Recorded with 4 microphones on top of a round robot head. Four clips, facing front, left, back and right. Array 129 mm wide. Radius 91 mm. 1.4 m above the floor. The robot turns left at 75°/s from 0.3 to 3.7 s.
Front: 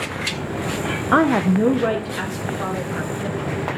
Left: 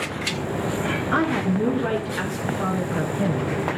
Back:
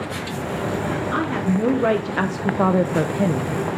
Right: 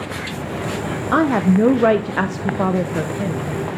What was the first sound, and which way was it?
A woman speaking, 35° right.